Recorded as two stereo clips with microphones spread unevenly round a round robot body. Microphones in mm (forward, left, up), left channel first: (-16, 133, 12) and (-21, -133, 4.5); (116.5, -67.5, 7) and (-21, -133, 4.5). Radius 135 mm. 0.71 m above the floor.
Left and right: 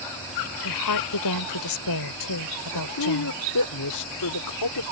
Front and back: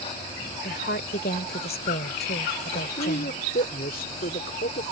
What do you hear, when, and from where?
0.6 s a woman speaking: 70° left
2.7 s a man speaking: 70° left